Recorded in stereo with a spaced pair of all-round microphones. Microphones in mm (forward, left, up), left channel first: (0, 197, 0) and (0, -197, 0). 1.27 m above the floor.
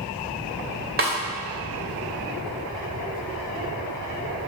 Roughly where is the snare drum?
Right.